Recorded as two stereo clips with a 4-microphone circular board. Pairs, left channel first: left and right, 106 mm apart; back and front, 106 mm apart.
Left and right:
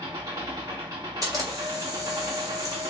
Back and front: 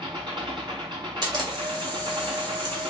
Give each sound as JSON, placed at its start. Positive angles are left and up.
{"t": 0.0, "sound": "an engine running", "azimuth_deg": -40, "distance_m": 4.0}
{"t": 1.2, "sound": "a camera shutter", "azimuth_deg": -40, "distance_m": 2.0}